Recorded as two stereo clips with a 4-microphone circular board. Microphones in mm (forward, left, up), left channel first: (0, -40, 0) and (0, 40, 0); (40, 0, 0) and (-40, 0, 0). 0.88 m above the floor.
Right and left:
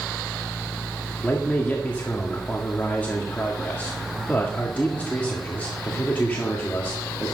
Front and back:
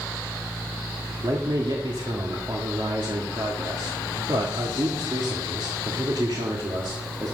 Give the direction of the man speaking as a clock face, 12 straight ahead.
5 o'clock.